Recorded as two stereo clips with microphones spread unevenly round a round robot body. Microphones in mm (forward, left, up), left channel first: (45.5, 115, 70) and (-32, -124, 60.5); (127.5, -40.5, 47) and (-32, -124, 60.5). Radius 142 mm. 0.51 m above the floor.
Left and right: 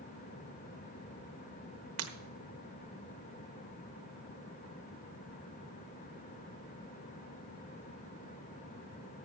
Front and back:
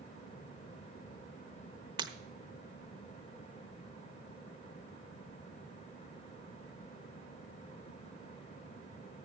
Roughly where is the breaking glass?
Right.